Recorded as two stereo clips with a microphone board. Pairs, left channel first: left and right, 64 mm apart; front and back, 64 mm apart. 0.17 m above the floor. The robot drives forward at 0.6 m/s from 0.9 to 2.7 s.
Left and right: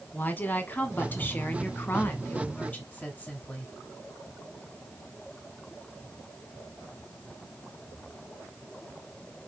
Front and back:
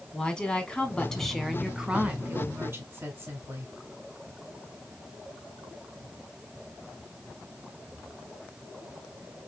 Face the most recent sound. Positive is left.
turn(degrees=145)